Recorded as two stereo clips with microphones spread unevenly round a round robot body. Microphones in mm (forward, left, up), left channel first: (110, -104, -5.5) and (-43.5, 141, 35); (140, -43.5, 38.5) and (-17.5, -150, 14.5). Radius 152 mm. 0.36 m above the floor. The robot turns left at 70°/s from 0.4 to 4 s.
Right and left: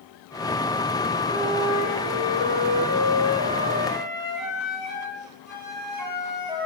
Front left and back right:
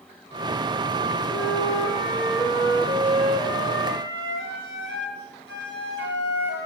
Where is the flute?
40° left, 10 m; by 6.7 s 150° right, 10 m.